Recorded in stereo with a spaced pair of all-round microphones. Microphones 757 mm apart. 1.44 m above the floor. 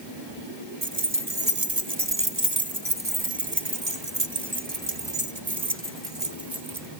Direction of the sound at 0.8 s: 25° right (ahead or behind).